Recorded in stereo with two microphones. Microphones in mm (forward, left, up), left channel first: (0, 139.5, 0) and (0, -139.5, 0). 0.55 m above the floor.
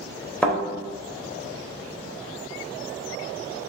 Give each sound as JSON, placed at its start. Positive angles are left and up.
{"t": 0.4, "sound": "a thud", "side_deg": 5, "distance_m": 1.0}